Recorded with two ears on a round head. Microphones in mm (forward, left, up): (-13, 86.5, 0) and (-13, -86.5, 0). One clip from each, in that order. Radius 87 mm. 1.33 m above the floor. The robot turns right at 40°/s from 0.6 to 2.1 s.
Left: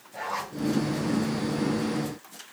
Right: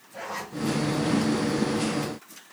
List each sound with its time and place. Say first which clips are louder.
0.1 s a zipper: left 3 dB; 5° right (ahead or behind), 6 m